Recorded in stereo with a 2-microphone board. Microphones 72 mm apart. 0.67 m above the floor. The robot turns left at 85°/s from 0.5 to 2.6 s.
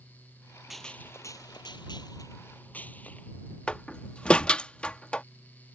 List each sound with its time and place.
0.7 s a gunshot: straight behind; by 3.4 s 20° left
3.7 s a door slam: 15° left (ahead or behind)